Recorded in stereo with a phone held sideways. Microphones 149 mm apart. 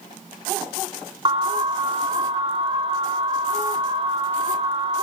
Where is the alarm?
35° right (ahead or behind), 2 m.